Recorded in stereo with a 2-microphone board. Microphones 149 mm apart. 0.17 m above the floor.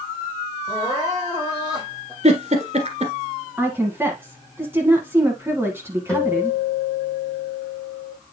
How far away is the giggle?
About 1.5 m.